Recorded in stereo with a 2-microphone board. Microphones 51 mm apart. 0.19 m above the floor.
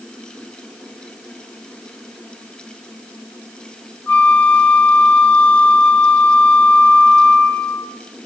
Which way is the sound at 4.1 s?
55° left (ahead or behind).